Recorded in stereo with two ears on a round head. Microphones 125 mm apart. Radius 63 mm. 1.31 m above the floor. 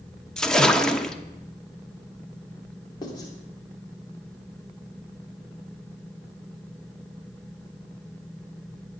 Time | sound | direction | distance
0.4 | a splash | 5° left (ahead or behind) | 1.0 m
3.0 | writing | 30° left (ahead or behind) | 3.5 m